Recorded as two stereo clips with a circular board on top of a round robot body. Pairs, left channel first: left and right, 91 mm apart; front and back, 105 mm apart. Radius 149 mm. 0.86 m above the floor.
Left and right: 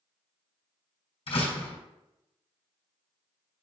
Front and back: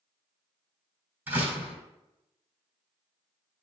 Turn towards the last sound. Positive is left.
turn(degrees=105)